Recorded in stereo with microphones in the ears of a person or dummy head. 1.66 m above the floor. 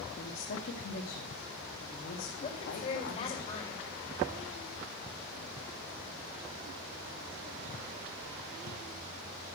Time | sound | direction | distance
0.2 | a woman speaking | 55° left (ahead or behind) | 1.4 m
2.4 | a woman speaking | 35° left (ahead or behind) | 5.5 m